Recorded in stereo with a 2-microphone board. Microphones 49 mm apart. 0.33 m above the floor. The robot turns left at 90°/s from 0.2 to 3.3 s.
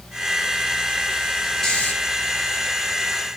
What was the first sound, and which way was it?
Snoring, 15° left (ahead or behind).